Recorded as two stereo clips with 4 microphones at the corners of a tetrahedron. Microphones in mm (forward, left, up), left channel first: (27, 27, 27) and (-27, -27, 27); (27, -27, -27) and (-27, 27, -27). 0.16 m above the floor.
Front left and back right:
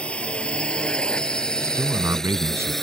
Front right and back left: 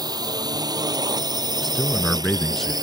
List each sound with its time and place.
0.0 s a drone: 120° left; by 2.8 s 130° left
1.6 s a man speaking: 130° right